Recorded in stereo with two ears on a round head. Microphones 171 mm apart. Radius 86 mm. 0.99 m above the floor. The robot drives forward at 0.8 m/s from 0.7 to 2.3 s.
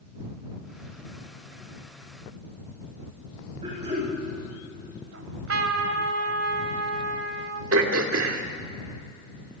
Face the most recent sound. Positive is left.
turn(degrees=-75)  # may be behind; listen again after turning